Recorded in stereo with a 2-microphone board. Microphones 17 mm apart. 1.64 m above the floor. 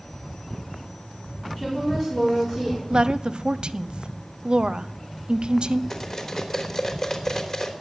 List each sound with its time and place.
1.6 s a woman speaking: 15° left (ahead or behind), 5.5 m
2.9 s a woman speaking: 60° right (ahead or behind), 0.7 m
5.9 s cutlery clinking: 45° left (ahead or behind), 3 m